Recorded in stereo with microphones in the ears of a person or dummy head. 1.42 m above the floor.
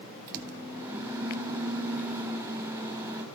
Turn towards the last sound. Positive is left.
turn(degrees=-10)  # may be behind; listen again after turning